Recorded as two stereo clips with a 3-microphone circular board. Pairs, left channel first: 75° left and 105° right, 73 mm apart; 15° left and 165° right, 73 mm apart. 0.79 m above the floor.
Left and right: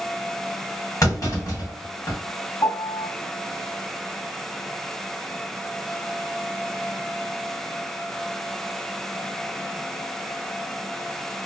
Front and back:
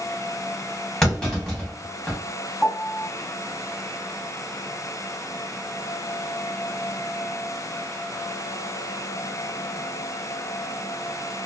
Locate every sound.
1.0 s a clunk: 100° left, 1.5 m
2.6 s a piano: 95° left, 1.2 m